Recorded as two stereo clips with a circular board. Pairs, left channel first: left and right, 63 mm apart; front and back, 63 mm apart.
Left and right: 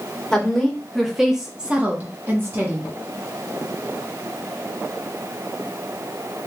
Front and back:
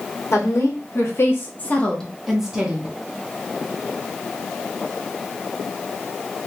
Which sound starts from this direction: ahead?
A woman speaking, at 0.3 s.